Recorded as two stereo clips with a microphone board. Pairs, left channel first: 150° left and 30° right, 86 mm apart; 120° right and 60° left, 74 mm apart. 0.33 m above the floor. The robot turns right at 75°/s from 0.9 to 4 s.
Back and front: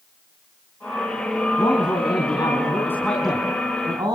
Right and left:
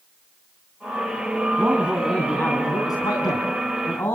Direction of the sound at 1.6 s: 115° left.